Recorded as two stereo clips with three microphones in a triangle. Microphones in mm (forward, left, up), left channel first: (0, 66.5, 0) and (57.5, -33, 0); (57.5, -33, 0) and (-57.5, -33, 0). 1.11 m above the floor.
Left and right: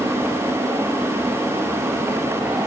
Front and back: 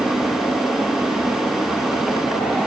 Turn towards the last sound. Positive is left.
No sound to turn to.